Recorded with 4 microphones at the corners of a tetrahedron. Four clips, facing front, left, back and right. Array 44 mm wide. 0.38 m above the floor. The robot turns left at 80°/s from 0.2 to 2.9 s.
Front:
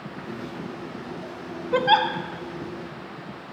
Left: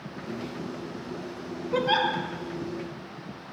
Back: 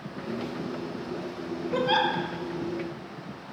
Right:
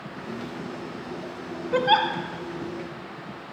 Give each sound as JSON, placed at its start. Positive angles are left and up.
{"t": 1.7, "sound": "a giggle", "azimuth_deg": -30, "distance_m": 2.0}